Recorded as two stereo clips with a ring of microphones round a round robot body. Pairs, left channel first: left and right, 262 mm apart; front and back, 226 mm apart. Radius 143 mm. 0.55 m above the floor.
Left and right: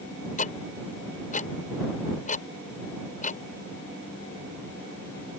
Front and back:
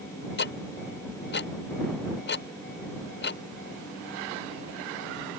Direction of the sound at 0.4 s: 30° left.